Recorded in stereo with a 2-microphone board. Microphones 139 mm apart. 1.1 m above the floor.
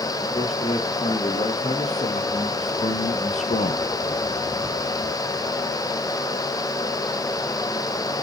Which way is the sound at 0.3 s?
55° left (ahead or behind).